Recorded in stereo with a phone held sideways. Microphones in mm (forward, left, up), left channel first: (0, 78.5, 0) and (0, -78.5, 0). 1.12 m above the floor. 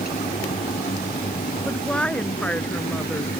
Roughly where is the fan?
Left.